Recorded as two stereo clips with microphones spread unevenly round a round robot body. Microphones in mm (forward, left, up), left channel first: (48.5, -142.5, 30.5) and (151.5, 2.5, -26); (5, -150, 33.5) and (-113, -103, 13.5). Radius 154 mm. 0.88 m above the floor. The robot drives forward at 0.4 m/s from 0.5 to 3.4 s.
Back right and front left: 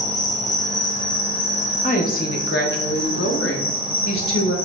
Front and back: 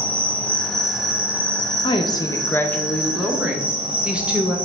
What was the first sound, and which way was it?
An insect, 95° right.